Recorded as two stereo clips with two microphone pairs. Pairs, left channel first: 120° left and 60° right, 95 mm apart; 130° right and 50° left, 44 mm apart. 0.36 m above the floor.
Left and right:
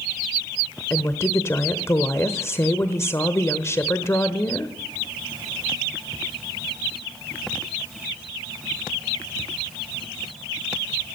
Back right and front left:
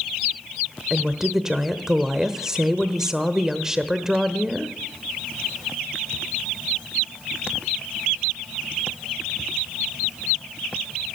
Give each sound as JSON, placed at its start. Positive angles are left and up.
{"t": 0.9, "sound": "a woman speaking", "azimuth_deg": 110, "distance_m": 1.1}